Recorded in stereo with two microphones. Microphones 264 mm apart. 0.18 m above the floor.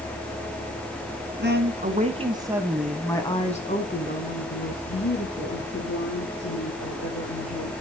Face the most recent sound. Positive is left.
turn(degrees=65)  # may be behind; listen again after turning